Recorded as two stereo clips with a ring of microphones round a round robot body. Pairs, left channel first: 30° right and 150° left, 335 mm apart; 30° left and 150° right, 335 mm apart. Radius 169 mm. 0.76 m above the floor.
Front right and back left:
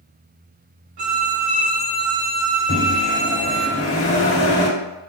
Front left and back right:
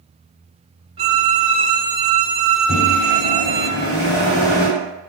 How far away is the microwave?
About 1.5 m.